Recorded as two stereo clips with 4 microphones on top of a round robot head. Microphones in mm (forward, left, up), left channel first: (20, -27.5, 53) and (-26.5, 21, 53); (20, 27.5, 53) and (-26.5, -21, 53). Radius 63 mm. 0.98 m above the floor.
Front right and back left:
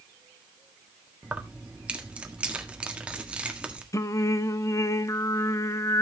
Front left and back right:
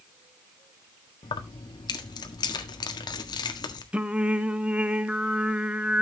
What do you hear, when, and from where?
1.2 s keys jangling: 60° left, 1.5 m
3.9 s singing: 65° right, 0.9 m